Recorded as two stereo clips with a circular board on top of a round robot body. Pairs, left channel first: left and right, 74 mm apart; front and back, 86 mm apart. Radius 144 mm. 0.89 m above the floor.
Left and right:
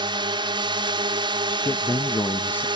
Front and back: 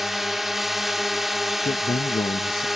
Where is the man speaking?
25° left.